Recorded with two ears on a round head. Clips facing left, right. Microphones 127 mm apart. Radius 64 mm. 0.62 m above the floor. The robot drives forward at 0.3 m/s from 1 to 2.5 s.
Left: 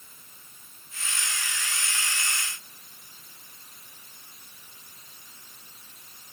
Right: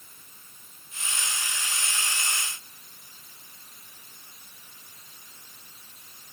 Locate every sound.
Only background noise.